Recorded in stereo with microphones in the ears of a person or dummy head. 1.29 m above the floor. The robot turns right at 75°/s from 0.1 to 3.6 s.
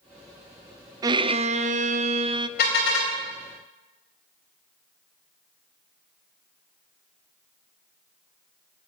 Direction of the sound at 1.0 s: 150° right.